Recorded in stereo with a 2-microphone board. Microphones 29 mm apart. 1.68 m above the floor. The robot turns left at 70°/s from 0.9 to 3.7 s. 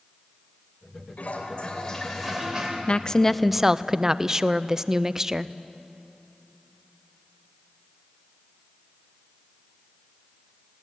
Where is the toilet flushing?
70° left, 3 m; by 2.8 s 45° right, 3 m.